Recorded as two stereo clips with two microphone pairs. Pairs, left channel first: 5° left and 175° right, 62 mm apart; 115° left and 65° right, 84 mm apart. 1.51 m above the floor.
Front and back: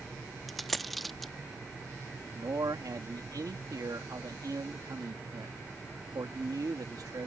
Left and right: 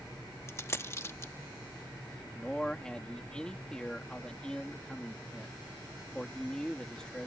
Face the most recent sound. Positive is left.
turn(degrees=-165)